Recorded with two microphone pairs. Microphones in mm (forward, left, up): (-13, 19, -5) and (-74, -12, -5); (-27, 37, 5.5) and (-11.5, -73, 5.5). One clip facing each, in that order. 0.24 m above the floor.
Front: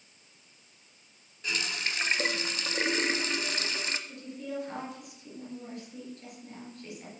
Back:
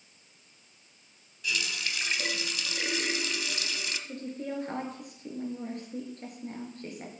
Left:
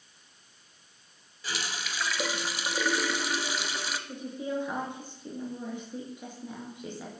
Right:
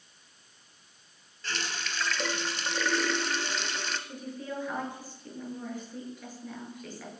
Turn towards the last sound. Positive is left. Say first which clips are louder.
# back 2 dB, left 4 dB
turn(degrees=165)